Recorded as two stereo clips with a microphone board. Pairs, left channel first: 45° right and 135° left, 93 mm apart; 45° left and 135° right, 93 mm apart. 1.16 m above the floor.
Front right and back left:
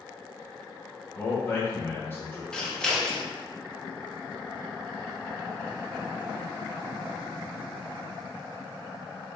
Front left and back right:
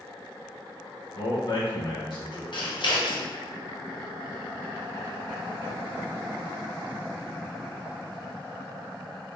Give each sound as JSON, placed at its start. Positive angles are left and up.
{"t": 1.1, "sound": "a man speaking", "azimuth_deg": 20, "distance_m": 1.3}
{"t": 2.5, "sound": "scissors", "azimuth_deg": 35, "distance_m": 0.7}